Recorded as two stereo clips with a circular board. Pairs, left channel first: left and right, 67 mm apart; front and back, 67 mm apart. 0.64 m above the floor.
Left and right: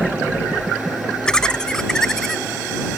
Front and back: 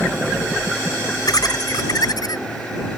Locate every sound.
1.3 s laughter: 10° left; by 2.5 s 5° left